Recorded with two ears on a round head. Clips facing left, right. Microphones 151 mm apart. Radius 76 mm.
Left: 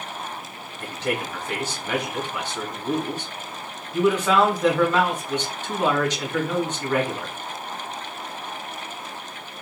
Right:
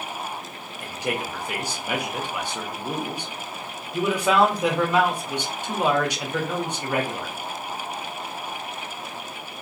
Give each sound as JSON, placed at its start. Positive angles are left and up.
{"t": 0.8, "sound": "a man speaking", "side_deg": -10, "distance_m": 0.8}